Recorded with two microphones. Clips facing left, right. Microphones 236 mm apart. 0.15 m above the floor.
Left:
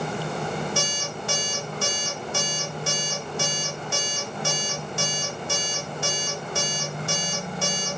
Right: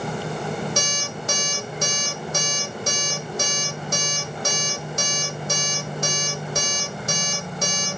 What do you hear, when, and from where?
0.8 s an alarm clock: 40° right (ahead or behind), 3 m